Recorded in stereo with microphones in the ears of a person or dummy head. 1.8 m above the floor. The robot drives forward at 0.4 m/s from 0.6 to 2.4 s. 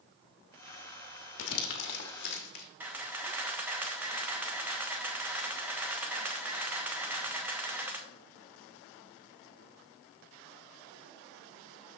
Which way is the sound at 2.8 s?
10° right (ahead or behind).